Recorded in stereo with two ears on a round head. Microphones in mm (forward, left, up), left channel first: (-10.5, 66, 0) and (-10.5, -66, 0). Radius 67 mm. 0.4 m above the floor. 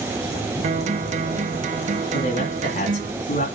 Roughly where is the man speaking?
Left.